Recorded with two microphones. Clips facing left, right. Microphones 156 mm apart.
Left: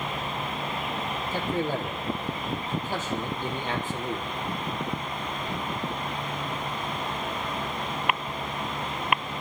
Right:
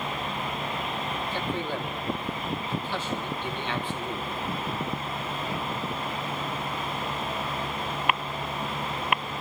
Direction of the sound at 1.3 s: 45° left (ahead or behind).